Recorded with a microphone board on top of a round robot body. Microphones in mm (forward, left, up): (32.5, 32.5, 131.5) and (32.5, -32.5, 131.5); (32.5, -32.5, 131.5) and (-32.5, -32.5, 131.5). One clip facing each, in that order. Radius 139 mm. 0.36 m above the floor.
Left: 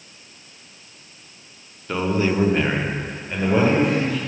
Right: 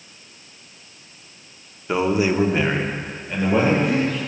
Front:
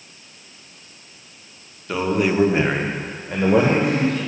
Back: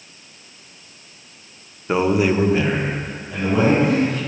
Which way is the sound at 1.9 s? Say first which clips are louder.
Right 2 dB, back 3 dB; 150° right.